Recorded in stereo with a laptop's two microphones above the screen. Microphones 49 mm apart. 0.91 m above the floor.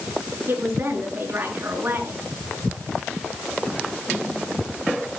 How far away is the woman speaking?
About 8.5 m.